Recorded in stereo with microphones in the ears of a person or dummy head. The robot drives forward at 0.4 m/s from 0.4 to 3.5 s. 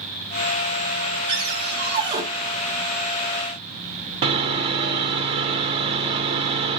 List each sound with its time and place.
1.3 s a cupboard door: 30° right (ahead or behind), 1.3 m; by 2.2 s 25° right (ahead or behind), 1.5 m
4.2 s sawing: 30° right (ahead or behind), 0.7 m